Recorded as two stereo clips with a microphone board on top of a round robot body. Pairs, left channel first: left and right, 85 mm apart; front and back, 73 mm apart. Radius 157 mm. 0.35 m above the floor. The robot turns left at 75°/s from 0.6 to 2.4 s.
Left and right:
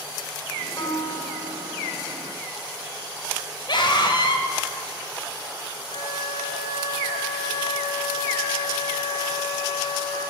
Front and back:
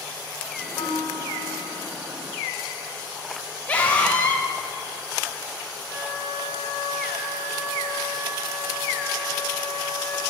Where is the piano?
35° left, 2 m; by 1.9 s 50° right, 2 m.